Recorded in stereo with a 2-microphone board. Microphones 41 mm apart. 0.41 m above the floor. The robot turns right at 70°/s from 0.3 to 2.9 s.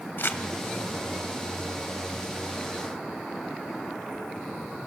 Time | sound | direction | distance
0.2 | crumpling | 65° left (ahead or behind) | 1.1 m